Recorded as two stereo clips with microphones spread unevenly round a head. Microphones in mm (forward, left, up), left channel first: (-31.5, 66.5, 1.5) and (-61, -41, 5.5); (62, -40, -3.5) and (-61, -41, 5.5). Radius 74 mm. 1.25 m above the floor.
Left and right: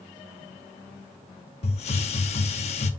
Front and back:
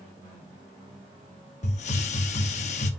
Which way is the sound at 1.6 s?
40° left.